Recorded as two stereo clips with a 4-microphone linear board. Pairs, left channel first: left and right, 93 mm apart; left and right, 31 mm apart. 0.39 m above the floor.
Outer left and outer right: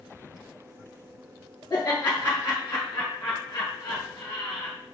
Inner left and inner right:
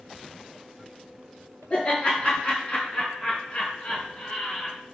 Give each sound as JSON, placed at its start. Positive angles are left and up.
{"t": 1.7, "sound": "laughter", "side_deg": 45, "distance_m": 3.0}